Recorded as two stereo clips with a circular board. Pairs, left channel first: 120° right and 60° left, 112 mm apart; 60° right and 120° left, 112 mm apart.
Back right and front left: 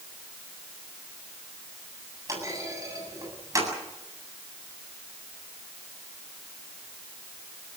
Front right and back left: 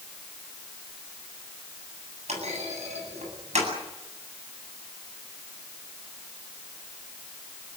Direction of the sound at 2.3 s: 120° left.